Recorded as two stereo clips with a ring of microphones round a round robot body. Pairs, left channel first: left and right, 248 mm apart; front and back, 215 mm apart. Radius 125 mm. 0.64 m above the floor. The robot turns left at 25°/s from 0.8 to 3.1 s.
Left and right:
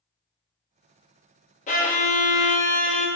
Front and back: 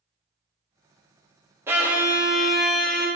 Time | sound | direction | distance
1.7 | a violin | 110° left | 0.7 m